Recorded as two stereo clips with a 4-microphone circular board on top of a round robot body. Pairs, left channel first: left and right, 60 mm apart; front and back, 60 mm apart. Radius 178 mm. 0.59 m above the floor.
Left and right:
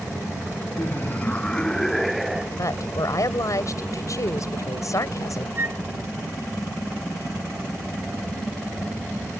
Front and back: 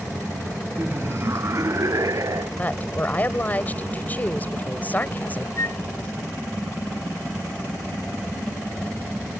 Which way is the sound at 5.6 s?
40° right.